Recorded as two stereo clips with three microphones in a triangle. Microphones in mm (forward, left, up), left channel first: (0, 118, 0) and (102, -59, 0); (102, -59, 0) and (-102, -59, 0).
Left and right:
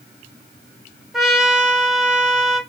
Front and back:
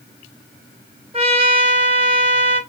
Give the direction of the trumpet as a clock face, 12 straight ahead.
5 o'clock.